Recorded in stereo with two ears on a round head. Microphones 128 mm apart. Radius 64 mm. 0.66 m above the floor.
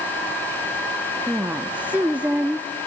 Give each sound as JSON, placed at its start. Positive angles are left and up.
{"t": 1.3, "sound": "a woman speaking", "side_deg": -10, "distance_m": 0.8}